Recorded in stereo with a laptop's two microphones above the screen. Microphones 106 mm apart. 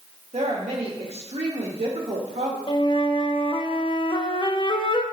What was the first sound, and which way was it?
A woman speaking, 85° right.